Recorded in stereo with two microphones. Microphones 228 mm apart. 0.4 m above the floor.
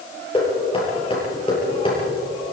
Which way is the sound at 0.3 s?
25° left (ahead or behind).